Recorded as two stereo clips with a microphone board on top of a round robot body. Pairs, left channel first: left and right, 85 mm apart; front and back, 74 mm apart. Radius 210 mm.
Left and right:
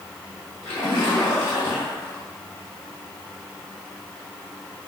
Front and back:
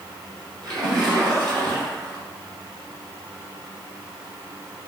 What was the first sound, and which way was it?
A splash, 150° left.